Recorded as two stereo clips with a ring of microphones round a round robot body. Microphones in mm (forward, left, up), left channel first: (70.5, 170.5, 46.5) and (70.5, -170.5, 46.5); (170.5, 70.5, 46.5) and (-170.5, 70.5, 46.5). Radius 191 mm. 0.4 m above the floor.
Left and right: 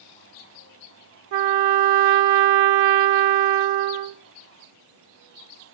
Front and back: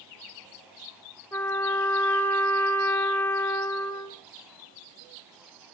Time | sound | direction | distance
1.3 | a trumpet | 85° right | 0.5 m